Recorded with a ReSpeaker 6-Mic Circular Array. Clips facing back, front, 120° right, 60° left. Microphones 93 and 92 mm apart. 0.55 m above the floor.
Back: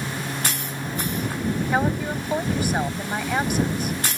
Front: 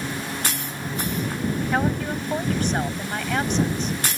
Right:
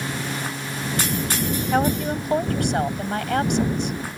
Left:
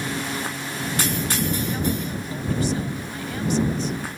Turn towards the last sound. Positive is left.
turn(degrees=-100)